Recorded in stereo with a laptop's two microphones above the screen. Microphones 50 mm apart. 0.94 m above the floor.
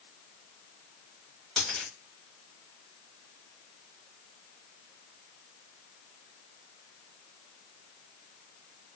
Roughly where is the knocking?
No knocking in this recording.